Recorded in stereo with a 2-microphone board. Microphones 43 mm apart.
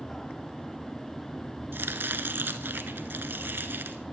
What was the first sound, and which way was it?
Chopping, 55° right (ahead or behind).